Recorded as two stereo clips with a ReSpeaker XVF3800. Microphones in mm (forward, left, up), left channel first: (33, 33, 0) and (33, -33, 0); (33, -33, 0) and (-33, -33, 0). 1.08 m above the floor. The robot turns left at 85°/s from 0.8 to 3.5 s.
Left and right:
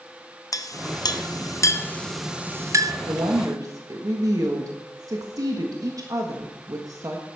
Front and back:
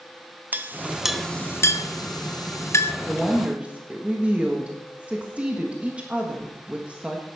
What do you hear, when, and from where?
0.5 s a clink: 120° left, 0.6 m; by 2.9 s 60° right, 0.6 m
3.1 s a woman speaking: 70° right, 1.4 m; by 7.2 s 110° right, 1.4 m